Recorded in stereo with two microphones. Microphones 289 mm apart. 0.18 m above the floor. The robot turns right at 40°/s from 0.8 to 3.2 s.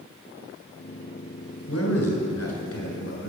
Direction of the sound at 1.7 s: 65° left.